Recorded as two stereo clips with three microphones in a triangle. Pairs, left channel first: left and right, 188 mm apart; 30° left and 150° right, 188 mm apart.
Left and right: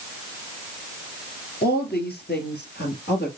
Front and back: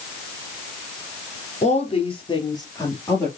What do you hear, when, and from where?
1.6 s a woman speaking: 75° left, 2 m; by 3.3 s 110° left, 2.5 m